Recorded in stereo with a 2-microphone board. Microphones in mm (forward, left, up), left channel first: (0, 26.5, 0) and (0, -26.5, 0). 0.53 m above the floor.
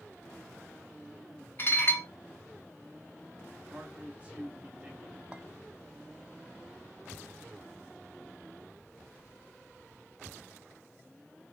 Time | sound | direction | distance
1.6 | dishes clattering | 40° left (ahead or behind) | 0.7 m
3.7 | a man speaking | 25° right (ahead or behind) | 1.5 m
5.3 | a clink | 20° right (ahead or behind) | 0.6 m